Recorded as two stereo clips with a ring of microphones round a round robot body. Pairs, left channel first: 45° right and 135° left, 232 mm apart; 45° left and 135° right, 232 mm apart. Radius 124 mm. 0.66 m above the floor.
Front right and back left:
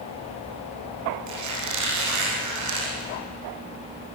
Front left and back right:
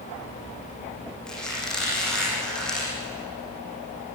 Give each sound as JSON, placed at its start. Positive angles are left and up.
{"t": 1.3, "sound": "a squeak", "azimuth_deg": 130, "distance_m": 8.5}